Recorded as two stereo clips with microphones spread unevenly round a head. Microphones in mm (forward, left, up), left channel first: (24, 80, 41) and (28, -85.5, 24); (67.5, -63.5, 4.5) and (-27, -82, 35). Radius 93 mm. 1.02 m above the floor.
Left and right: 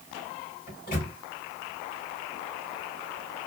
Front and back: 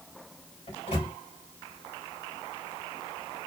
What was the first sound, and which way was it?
A microwave, 55° left.